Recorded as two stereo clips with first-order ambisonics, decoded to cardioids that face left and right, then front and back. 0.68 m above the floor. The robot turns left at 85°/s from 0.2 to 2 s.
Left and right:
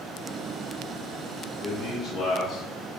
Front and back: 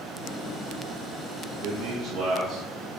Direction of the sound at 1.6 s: 170° right.